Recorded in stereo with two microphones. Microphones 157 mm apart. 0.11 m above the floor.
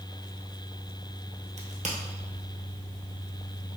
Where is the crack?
50° right (ahead or behind), 1.0 m.